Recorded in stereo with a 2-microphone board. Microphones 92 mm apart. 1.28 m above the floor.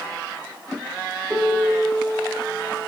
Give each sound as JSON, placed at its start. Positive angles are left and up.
{"t": 1.3, "sound": "a piano", "side_deg": -10, "distance_m": 1.3}